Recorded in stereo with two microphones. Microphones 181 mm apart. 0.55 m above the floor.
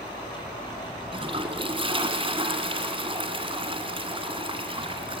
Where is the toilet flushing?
30° right (ahead or behind), 2 m.